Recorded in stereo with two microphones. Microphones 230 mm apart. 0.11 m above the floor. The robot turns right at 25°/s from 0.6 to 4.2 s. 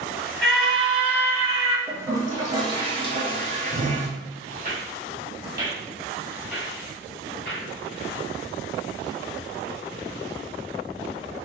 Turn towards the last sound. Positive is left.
turn(degrees=0)  # may be behind; listen again after turning